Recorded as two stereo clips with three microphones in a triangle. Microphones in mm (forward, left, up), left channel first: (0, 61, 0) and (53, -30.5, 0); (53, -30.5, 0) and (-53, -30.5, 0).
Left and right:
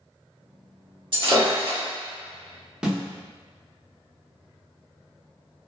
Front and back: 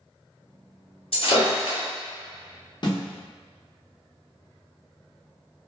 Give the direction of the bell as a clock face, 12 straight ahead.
No bell in this recording.